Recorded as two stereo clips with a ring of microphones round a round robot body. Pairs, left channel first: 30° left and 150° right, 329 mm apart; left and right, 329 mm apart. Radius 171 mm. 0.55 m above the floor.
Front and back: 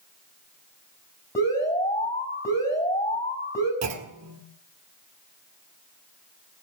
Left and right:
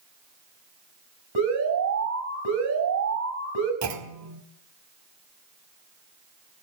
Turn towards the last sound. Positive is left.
turn(degrees=-115)